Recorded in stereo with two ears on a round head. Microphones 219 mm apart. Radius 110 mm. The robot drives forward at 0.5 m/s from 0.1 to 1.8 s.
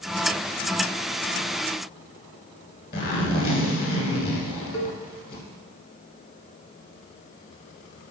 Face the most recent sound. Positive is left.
turn(degrees=60)  # may be behind; listen again after turning